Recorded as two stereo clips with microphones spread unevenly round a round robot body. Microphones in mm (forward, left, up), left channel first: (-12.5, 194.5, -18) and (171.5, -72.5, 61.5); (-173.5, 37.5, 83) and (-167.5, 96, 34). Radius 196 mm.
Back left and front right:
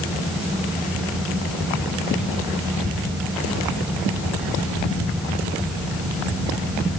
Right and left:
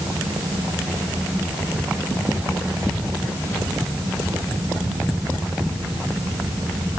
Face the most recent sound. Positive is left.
No sound to turn to.